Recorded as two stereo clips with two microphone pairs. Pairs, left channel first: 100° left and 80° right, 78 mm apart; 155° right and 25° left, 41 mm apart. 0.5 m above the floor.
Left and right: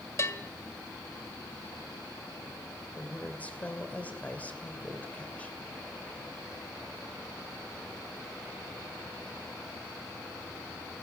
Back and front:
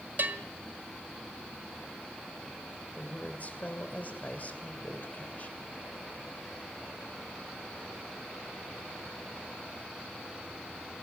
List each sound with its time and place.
0.2 s a bell: 55° left, 1.5 m
3.0 s a woman speaking: 165° left, 2.5 m